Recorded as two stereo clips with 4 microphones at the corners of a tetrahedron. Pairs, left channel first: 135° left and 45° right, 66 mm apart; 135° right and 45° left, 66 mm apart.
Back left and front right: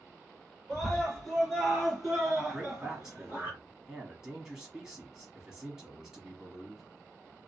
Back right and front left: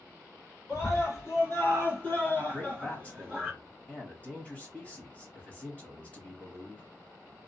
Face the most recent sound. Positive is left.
turn(degrees=-115)